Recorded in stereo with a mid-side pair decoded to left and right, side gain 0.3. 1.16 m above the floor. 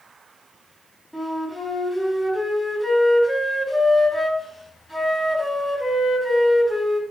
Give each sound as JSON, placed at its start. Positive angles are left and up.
{"t": 1.1, "sound": "a flute", "azimuth_deg": -5, "distance_m": 4.5}